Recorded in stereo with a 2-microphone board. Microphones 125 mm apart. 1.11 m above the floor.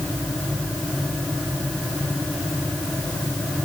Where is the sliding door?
No sliding door in this recording.